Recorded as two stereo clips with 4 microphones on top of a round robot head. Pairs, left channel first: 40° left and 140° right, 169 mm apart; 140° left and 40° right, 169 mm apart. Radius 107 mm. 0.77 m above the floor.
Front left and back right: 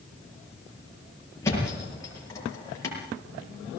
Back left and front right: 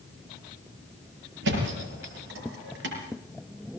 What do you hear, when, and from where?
1.4 s a thud: 30° right, 6.5 m